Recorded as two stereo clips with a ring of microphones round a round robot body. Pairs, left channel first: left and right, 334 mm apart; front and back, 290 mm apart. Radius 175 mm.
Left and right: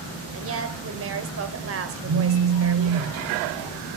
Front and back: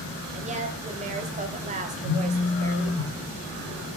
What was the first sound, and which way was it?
A woman speaking, 120° right.